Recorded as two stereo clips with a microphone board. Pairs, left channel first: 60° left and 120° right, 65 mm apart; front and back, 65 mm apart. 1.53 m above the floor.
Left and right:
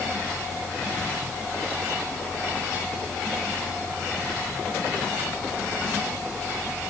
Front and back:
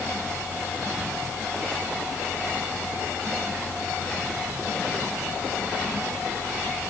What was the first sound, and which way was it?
Only background noise.